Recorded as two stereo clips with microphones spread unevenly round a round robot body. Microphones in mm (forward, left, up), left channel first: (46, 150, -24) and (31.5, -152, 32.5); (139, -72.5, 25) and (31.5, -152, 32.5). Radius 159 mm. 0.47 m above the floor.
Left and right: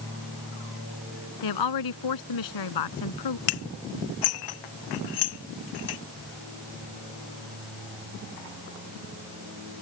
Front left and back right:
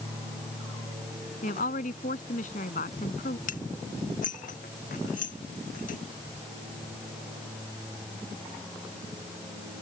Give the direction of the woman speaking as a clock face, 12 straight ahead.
9 o'clock.